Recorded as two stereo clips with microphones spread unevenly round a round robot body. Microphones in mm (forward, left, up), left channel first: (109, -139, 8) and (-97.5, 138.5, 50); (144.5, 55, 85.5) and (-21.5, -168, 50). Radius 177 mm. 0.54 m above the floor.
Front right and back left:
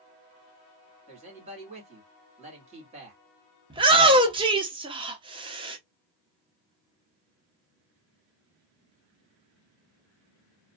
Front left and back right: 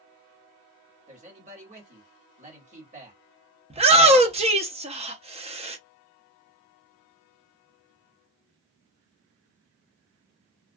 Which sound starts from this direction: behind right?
A shout, at 3.7 s.